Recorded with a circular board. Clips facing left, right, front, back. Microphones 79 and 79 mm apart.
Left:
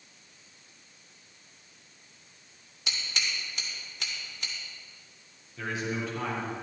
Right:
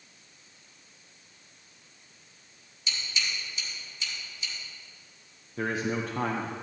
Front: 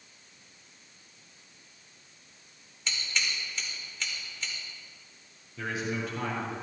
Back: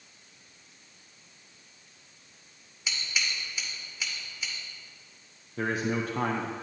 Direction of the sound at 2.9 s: 100° left.